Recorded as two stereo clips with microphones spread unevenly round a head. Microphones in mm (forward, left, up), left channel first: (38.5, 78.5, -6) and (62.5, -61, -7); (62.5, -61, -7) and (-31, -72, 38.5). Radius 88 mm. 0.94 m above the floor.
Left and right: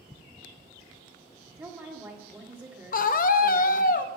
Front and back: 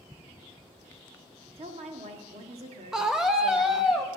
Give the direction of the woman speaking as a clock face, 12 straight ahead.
5 o'clock.